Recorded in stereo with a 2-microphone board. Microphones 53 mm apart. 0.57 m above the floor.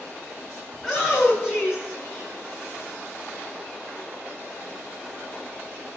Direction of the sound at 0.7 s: 15° left (ahead or behind).